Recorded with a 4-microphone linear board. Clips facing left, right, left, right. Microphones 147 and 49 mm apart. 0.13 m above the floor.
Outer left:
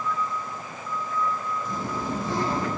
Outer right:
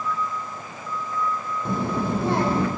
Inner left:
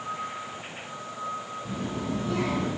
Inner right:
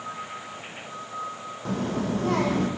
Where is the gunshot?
I don't hear a gunshot.